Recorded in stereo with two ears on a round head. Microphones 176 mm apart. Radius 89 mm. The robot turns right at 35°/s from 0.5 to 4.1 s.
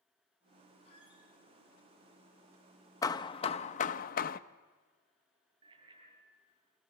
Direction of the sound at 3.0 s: 20° left.